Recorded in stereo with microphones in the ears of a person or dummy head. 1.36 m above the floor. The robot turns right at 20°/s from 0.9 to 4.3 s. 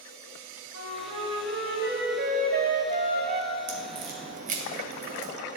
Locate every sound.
0.7 s a flute: 100° right, 3 m; by 3.5 s 45° right, 3 m
3.7 s a crack: 35° right (ahead or behind), 0.8 m; by 5.3 s 45° right (ahead or behind), 0.8 m